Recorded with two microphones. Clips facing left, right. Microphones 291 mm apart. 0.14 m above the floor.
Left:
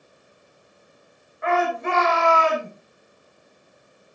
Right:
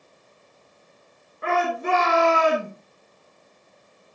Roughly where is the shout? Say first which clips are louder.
Left 1 dB; right.